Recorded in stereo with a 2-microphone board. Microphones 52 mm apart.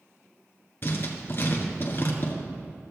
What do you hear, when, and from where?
0.8 s writing: 40° left (ahead or behind), 1.4 m